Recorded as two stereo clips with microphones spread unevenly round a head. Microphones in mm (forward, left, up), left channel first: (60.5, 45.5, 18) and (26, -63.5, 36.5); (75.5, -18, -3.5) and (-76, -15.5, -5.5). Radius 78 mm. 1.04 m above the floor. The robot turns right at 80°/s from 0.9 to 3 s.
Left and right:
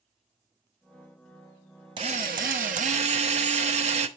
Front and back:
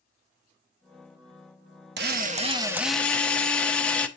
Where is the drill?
170° right, 1.0 m; by 4.1 s 85° right, 1.0 m.